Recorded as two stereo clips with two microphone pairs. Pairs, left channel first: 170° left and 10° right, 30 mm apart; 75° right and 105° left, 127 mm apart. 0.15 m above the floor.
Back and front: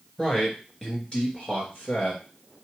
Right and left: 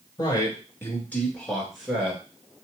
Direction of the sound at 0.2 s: 125° right.